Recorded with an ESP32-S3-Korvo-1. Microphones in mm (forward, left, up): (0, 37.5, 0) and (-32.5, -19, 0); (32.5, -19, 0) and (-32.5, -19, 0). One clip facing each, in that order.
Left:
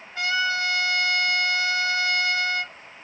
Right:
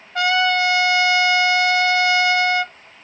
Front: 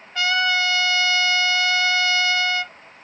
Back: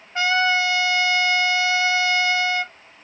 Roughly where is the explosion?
No explosion in this recording.